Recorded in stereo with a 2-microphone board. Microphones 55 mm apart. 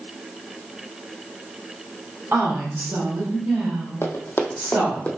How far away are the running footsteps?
About 1.1 m.